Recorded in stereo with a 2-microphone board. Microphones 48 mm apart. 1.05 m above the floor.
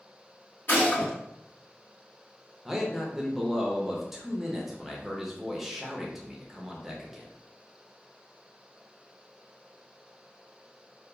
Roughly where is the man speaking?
Centre.